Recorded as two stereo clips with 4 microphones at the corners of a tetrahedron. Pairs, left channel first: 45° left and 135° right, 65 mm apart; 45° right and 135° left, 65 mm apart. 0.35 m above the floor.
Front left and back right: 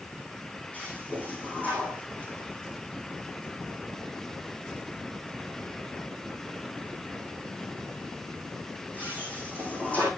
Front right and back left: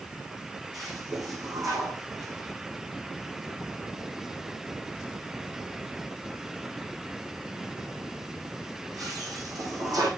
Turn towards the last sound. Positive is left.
turn(degrees=110)